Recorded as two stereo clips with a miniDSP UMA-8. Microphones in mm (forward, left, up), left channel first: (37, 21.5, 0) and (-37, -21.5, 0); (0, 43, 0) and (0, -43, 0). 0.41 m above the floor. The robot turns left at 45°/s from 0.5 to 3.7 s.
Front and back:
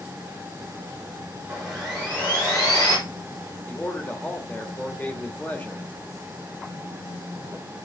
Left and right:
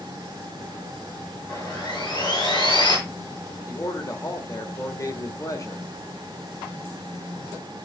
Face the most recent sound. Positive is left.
turn(degrees=85)